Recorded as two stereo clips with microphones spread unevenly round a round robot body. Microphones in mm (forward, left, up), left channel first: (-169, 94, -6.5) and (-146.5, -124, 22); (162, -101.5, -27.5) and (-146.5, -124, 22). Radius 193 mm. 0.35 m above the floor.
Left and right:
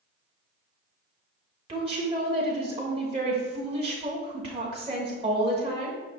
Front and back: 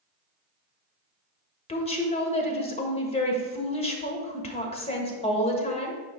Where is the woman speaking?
25° right, 1.0 m.